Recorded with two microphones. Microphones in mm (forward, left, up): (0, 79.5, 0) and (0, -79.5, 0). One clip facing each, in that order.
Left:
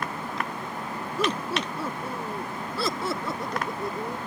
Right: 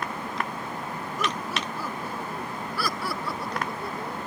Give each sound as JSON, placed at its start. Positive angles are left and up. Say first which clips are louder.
{"t": 1.2, "sound": "laughter", "louder": "left 4 dB", "side_deg": 30}